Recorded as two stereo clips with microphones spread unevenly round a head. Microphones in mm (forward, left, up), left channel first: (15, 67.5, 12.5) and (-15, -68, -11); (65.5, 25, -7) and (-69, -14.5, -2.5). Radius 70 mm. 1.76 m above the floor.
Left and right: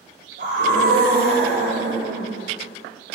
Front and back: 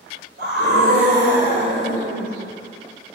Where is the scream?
140° right, 6 m; by 2.3 s 115° right, 6 m.